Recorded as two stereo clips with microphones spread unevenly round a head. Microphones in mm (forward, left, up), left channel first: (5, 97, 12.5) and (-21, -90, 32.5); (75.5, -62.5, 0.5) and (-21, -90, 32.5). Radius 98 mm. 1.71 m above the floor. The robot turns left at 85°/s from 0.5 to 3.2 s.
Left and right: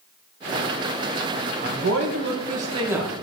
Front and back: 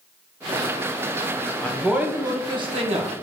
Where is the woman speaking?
60° right, 1.8 m; by 3.1 s 170° left, 1.8 m.